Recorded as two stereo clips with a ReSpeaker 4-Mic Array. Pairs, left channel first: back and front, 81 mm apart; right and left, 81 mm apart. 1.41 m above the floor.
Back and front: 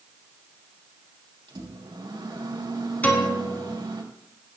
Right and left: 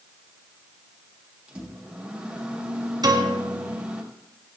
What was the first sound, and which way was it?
A microwave, 15° left.